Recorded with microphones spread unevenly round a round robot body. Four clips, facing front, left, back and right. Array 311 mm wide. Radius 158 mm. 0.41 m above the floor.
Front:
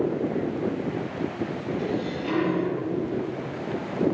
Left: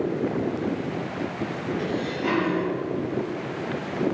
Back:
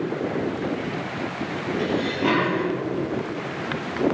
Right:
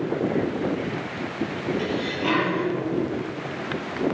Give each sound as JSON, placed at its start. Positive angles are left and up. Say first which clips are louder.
{"t": 1.8, "sound": "dishes clattering", "louder": "right 1 dB, back 7 dB", "azimuth_deg": 180, "distance_m": 7.5}